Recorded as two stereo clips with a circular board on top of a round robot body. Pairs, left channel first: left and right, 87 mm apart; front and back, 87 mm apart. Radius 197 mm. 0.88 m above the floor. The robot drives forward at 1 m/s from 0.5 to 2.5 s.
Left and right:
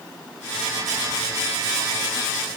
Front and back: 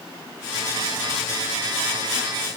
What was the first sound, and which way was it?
Only background noise.